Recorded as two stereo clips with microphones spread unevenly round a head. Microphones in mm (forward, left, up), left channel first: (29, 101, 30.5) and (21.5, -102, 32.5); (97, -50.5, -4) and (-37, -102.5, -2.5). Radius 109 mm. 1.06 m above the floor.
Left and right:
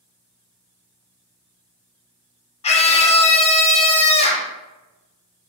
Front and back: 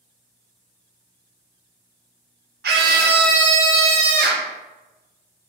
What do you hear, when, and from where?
2.6 s a scream: 150° left, 0.5 m